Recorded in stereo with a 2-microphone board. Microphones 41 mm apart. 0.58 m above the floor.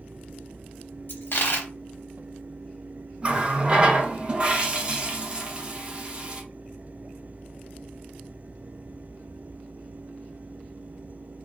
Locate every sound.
1.1 s a dropped coin: 60° left (ahead or behind), 0.6 m
3.2 s a running tap: 25° right (ahead or behind), 0.6 m